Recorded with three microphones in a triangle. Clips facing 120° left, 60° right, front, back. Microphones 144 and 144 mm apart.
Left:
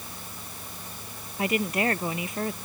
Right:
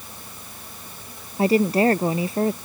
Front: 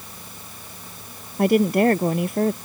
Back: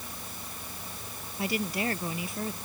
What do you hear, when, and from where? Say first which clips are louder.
1.4 s a woman speaking: right 9 dB, front 14 dB; 10° right